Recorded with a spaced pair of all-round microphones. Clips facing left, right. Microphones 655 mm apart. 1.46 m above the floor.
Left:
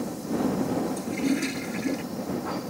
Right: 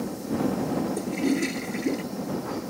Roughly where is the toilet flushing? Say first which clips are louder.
Right 1 dB; left.